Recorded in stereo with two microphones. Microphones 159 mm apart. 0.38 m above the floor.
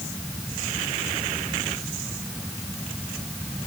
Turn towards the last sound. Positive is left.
No sound to turn to.